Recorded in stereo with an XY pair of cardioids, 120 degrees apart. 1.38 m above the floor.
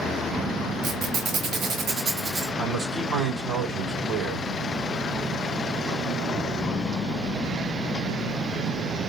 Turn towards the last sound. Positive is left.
turn(degrees=-35)